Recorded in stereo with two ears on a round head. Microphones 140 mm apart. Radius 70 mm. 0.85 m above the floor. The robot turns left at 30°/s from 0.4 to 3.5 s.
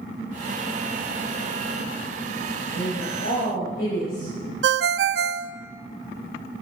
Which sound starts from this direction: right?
A ringtone, at 4.6 s.